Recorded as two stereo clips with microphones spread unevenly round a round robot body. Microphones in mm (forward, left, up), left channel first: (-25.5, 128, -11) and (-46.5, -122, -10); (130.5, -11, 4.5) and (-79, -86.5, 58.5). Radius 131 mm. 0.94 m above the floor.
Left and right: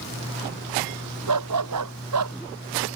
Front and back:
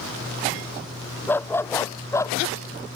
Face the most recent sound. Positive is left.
turn(degrees=-60)